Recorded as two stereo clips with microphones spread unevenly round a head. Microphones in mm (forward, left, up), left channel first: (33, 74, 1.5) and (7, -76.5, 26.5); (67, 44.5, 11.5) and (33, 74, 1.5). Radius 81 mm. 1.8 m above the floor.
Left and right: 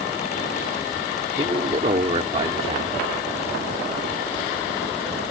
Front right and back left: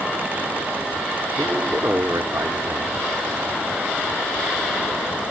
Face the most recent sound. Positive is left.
turn(degrees=-155)